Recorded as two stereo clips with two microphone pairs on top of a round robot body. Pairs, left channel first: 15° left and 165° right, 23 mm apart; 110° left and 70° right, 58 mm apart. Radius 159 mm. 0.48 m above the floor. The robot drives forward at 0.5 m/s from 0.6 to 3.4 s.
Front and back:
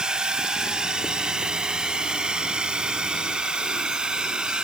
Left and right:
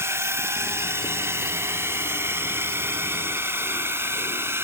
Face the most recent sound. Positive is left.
turn(degrees=-115)